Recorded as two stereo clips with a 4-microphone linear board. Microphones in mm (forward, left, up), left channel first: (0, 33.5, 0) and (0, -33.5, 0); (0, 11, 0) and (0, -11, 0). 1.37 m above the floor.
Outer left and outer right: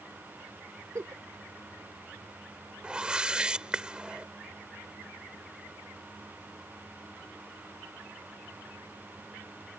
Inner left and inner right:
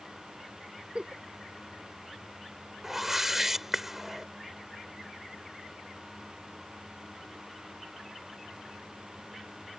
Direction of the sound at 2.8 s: 15° right (ahead or behind).